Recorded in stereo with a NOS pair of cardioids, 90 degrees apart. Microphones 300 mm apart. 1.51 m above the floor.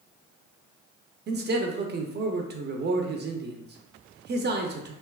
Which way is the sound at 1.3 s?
35° right.